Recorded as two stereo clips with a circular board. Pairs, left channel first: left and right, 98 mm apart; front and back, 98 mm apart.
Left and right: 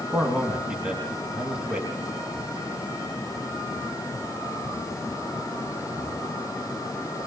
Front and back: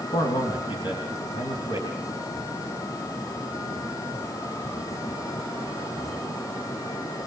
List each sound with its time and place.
0.1 s a man speaking: 10° right, 3 m